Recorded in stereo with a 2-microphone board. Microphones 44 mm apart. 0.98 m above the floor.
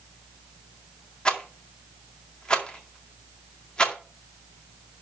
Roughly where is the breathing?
No breathing in this recording.